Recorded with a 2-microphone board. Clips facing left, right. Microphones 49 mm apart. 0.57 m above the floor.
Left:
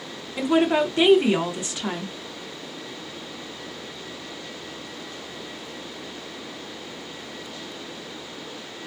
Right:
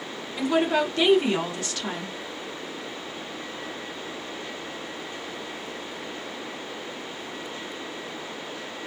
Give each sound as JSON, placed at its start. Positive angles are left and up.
{"t": 0.4, "sound": "a woman speaking", "side_deg": 15, "distance_m": 0.8}